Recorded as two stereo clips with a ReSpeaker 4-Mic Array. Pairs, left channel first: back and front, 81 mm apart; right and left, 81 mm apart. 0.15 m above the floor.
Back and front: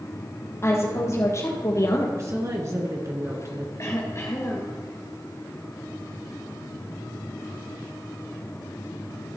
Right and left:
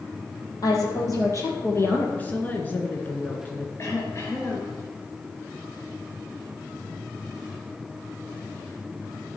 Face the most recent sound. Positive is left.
turn(degrees=-140)